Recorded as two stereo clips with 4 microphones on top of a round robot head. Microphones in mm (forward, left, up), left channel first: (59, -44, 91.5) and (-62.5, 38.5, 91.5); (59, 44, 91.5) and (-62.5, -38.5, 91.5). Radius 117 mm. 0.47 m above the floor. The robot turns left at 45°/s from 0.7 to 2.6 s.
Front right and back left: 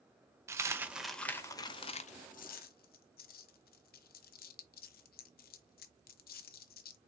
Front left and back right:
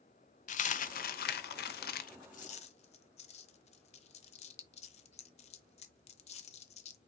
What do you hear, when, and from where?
0.5 s a dropped coin: 75° left, 0.6 m; by 7.0 s 15° right, 0.6 m